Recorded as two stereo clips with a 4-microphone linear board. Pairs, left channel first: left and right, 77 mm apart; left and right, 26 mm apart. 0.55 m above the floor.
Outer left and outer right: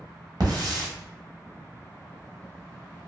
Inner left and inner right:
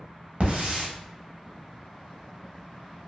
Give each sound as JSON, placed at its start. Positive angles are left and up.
{"t": 0.4, "sound": "a hiss", "side_deg": -60, "distance_m": 0.9}